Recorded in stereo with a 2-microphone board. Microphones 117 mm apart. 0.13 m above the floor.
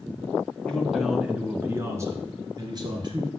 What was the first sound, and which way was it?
A man speaking, 10° left (ahead or behind).